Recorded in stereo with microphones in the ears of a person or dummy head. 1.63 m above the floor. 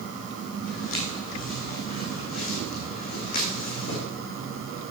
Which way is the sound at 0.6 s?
45° left (ahead or behind).